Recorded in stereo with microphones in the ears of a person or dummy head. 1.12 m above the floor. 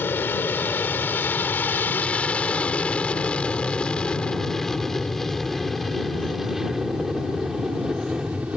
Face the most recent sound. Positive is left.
turn(degrees=-5)  # may be behind; listen again after turning